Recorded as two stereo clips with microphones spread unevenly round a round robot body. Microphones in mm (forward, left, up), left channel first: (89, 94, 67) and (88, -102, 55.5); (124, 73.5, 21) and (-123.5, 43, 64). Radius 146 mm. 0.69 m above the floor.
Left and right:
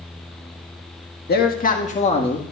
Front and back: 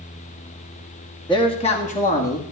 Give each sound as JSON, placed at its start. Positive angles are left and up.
{"t": 1.3, "sound": "a man speaking", "azimuth_deg": 65, "distance_m": 1.3}